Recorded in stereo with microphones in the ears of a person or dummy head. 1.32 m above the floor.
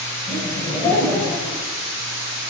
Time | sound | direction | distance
0.3 | laughter | 15° left (ahead or behind) | 6 m